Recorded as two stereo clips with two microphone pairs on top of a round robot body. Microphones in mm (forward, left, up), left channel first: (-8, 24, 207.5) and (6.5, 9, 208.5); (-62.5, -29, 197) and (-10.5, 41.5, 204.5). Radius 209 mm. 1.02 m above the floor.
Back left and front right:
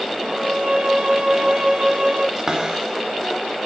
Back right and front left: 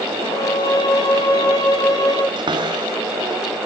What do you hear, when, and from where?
0.2 s a violin: 85° right, 9 m
2.4 s a cupboard door: 20° left, 0.9 m